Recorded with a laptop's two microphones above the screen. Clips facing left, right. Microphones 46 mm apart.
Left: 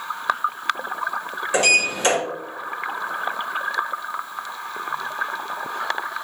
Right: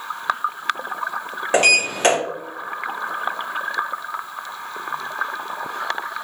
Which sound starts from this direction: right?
A sliding door, at 1.5 s.